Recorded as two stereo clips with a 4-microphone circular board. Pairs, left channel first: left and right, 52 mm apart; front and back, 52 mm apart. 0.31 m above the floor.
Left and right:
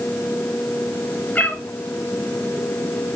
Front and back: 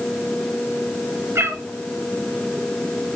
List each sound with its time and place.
1.4 s a cat meowing: 150° left, 1.8 m